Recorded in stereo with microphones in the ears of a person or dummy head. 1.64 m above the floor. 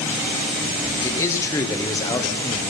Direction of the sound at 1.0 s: 20° left (ahead or behind).